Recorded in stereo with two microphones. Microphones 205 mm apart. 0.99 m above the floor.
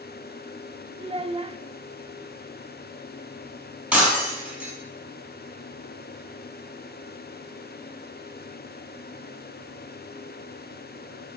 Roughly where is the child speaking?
Right.